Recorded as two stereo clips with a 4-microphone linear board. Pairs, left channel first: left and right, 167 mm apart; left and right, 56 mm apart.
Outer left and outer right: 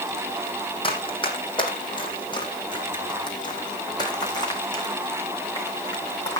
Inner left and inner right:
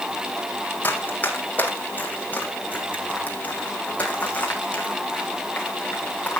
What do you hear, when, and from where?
0.8 s running footsteps: 30° left (ahead or behind), 2.5 m; by 6.4 s 20° left (ahead or behind), 5 m